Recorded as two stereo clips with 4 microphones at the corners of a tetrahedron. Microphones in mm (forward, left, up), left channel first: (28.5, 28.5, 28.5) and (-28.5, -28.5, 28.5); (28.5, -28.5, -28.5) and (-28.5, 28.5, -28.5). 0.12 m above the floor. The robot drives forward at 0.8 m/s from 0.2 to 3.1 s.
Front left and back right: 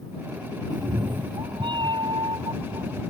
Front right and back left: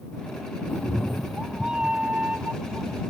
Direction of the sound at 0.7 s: 110° right.